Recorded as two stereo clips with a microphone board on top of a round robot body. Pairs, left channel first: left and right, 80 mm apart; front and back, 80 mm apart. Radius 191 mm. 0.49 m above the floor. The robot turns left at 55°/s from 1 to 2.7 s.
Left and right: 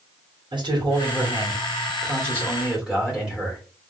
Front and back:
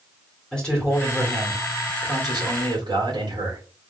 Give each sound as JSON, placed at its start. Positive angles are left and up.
{"t": 0.5, "sound": "a man speaking", "azimuth_deg": -80, "distance_m": 2.5}